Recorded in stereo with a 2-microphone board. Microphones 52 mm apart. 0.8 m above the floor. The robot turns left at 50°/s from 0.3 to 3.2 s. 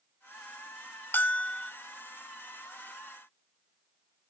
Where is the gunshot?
No gunshot in this recording.